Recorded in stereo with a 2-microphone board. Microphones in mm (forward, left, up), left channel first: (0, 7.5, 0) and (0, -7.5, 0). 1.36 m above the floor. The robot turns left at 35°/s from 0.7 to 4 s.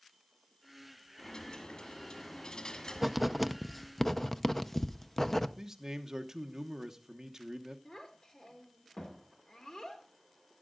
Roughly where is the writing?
Centre.